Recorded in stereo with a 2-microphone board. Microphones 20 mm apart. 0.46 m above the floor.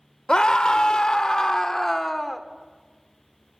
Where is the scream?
45° left (ahead or behind), 1.3 m; by 2.4 s 10° left (ahead or behind), 1.0 m.